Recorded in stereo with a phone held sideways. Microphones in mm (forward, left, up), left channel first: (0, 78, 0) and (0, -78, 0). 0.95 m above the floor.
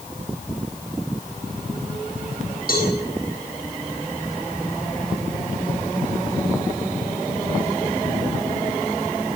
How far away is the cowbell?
About 9.5 m.